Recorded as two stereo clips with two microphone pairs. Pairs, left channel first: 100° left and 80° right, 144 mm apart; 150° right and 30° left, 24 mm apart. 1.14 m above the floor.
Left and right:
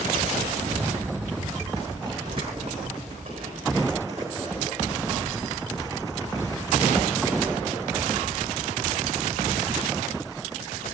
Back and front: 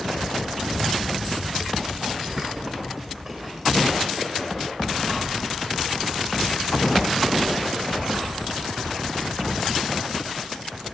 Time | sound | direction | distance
0.6 | running footsteps | 20° right | 8 m